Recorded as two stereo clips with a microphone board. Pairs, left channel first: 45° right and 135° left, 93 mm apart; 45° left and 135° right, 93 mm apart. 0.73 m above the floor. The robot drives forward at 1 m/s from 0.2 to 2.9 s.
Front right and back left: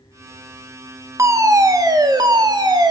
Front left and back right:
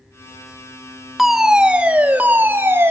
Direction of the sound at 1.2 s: 135° left.